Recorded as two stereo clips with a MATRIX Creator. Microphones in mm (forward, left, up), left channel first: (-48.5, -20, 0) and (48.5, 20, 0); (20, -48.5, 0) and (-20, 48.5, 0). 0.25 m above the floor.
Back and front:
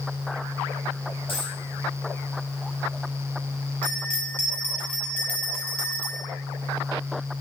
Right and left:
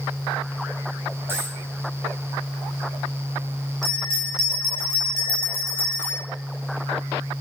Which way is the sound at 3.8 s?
85° right.